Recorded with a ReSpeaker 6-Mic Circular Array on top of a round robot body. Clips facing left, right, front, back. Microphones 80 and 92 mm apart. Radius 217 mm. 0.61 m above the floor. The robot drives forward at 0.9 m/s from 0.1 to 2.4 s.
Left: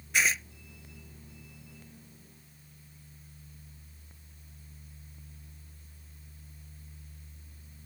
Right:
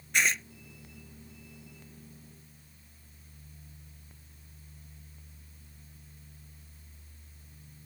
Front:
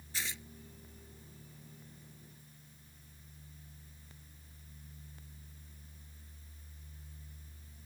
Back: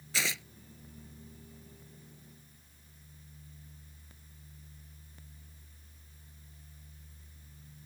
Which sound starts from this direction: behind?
Tearing paper, at 0.1 s.